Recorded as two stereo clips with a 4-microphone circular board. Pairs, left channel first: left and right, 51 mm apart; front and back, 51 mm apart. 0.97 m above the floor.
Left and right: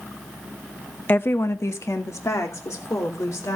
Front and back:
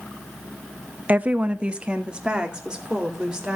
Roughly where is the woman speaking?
Behind left.